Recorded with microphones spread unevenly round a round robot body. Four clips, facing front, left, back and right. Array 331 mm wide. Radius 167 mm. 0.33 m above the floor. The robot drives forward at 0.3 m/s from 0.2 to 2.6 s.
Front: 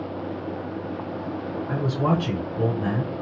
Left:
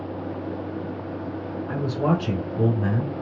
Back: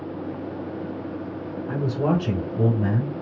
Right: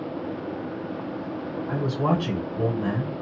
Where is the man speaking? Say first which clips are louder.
Left 1 dB, back 1 dB; 155° left, 1.9 m; by 3.1 s 160° left, 2 m.